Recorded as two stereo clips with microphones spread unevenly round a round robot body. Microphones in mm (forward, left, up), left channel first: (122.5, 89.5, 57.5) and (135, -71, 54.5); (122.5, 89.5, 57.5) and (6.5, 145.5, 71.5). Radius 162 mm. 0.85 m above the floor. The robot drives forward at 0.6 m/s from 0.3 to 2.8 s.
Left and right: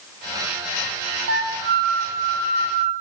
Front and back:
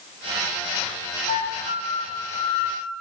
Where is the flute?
65° right, 0.6 m; by 2.9 s 145° right, 0.8 m.